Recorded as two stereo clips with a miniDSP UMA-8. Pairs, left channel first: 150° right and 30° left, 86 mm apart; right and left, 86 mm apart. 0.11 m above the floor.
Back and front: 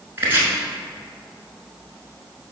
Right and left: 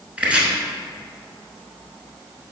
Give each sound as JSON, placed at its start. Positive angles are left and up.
{"t": 0.2, "sound": "chopping", "azimuth_deg": 40, "distance_m": 1.1}